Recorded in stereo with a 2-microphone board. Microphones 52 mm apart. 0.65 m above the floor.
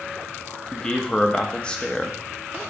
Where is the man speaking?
20° left (ahead or behind), 0.5 m.